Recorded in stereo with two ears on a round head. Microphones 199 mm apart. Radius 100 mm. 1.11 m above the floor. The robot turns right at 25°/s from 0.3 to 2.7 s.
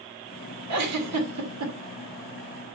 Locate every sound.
0.7 s a giggle: 85° right, 2.5 m; by 1.7 s 60° right (ahead or behind), 2.5 m